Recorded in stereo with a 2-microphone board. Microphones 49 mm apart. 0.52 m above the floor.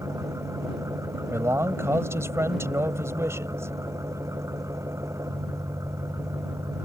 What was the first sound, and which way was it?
An engine running, 90° right.